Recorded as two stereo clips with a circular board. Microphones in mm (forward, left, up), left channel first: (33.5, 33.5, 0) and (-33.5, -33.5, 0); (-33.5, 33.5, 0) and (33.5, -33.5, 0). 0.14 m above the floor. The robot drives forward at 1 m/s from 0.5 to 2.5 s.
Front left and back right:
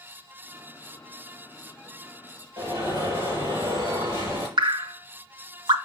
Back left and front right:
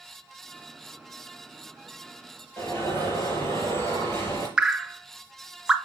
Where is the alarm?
170° right, 5 m.